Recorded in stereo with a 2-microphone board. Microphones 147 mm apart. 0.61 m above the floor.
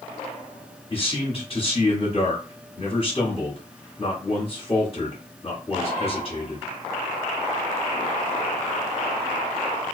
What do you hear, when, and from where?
0.9 s a man speaking: 35° left (ahead or behind), 1.0 m